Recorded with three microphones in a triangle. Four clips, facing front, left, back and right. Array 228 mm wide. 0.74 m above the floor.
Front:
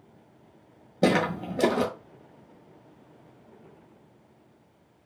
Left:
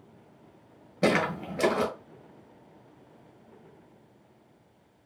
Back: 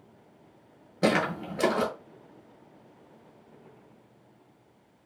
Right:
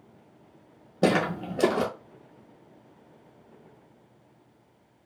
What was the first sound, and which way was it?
Footsteps, 50° right.